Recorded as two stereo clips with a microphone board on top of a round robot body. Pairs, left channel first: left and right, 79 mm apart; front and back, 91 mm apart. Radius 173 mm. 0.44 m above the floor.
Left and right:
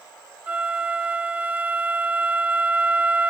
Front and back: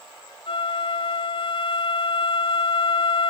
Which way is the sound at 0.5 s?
15° right.